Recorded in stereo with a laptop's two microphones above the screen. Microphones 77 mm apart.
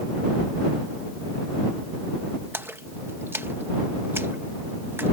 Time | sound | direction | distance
2.5 | a splash | 30° right (ahead or behind) | ?